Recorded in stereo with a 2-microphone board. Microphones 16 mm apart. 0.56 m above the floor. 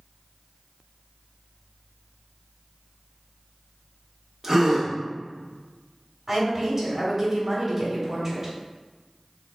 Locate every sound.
4.4 s a gasp: 25° right (ahead or behind), 1.0 m
6.3 s a woman speaking: 20° right (ahead or behind), 1.7 m